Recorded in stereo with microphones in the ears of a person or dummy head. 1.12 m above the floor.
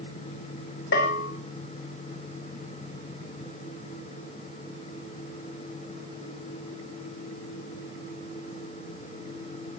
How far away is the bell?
About 3 m.